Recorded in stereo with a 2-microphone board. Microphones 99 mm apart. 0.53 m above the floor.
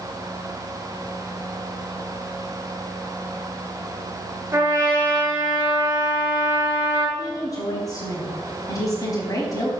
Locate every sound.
4.5 s a trumpet: 20° right (ahead or behind), 2.5 m
7.2 s a woman speaking: 35° left (ahead or behind), 4 m